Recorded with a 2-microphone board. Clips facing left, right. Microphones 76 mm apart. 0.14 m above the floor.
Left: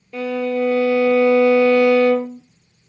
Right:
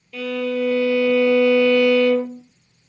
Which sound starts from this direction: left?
A violin, at 0.1 s.